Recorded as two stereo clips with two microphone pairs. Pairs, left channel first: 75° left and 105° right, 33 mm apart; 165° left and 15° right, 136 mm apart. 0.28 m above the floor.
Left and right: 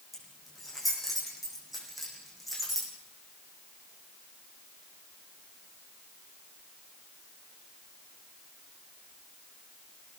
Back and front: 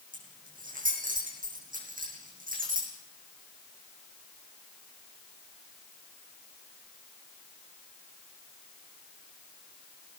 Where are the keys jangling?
15° right, 9 m.